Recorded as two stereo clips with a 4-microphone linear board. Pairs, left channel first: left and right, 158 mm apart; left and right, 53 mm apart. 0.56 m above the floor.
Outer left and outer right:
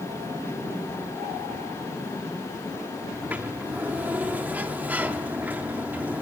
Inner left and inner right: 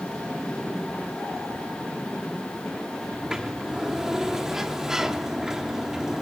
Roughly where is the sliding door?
Centre.